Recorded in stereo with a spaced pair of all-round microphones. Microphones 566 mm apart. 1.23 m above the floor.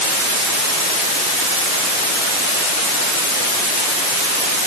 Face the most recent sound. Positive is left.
No sound to turn to.